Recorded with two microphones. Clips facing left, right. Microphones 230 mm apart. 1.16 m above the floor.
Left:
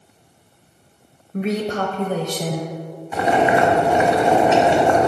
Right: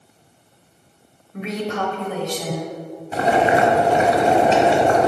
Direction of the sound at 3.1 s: 35° right (ahead or behind).